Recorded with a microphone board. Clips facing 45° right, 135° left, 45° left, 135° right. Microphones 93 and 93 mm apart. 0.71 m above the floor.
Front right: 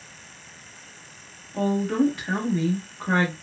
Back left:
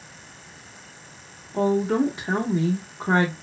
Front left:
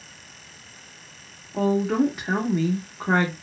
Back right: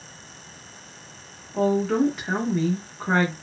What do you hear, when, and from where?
1.5 s a woman speaking: 120° left, 0.7 m